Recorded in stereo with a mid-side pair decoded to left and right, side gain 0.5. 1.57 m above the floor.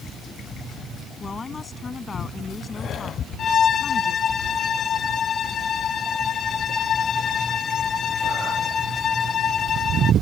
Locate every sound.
1.2 s a woman speaking: 35° left
3.4 s a violin: 50° left